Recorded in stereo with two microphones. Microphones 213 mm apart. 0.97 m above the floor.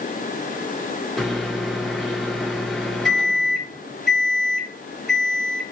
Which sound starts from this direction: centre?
A microwave, at 1.2 s.